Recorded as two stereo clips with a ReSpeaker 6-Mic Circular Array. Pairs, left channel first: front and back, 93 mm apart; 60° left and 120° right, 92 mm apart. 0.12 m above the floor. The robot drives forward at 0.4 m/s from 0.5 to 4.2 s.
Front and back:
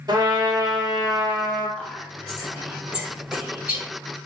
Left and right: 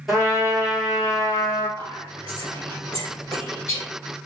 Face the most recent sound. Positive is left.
turn(degrees=140)